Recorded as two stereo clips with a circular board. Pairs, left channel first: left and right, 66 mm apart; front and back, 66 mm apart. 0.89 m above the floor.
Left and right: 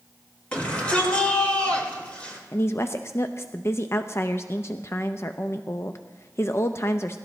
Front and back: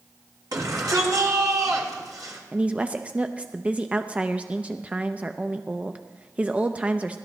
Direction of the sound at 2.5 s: 120° left.